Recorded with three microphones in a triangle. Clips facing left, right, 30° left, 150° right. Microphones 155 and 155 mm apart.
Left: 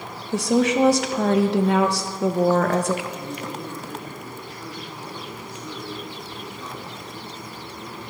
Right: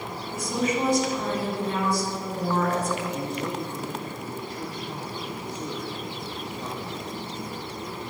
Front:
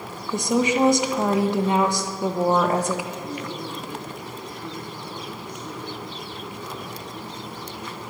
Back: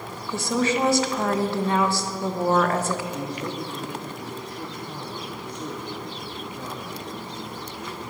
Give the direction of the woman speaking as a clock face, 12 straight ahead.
9 o'clock.